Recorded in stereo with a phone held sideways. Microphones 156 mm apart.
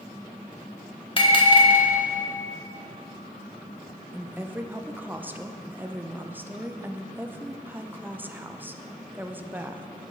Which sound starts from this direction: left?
A bell, at 1.2 s.